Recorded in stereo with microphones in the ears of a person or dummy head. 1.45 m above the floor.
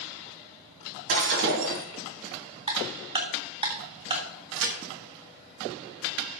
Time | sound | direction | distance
1.1 | breaking glass | 55° right (ahead or behind) | 3.5 m
2.7 | ticking | 30° right (ahead or behind) | 1.6 m
4.5 | a crack | 65° right (ahead or behind) | 1.5 m